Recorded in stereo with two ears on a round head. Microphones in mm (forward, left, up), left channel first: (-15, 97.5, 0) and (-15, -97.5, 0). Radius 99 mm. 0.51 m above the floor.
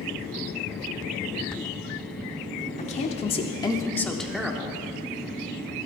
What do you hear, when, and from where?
2.8 s a woman speaking: 30° left (ahead or behind), 1.4 m; by 4.8 s 10° right (ahead or behind), 1.4 m